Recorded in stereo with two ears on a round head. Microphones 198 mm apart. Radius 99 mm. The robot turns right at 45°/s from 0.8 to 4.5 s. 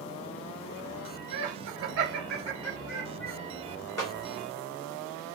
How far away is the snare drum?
About 2.5 m.